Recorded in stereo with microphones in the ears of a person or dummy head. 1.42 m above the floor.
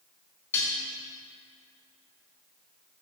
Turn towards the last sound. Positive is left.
turn(degrees=15)  # may be behind; listen again after turning